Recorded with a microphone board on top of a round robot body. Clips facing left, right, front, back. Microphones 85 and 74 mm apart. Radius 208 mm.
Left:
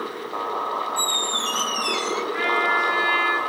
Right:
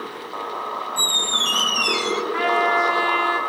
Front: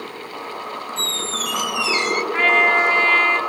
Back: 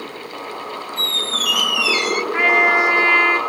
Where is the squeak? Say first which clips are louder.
Left 1 dB, back 1 dB; 65° right, 0.6 m.